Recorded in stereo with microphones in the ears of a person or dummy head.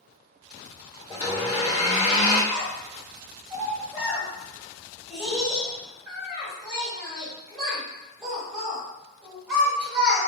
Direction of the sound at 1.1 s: 35° left (ahead or behind).